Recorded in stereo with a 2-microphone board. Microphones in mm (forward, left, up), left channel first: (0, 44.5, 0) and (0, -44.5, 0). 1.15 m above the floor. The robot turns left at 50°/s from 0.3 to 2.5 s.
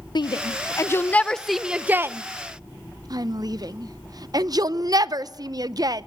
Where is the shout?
55° left (ahead or behind), 0.5 m; by 6.0 s 45° right (ahead or behind), 0.5 m.